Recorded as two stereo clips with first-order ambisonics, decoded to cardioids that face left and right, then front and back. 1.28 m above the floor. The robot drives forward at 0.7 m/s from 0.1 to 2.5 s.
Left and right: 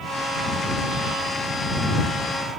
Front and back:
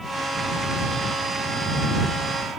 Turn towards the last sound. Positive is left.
No sound to turn to.